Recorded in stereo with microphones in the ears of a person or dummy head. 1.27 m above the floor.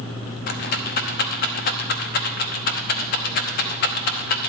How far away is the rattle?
About 0.8 m.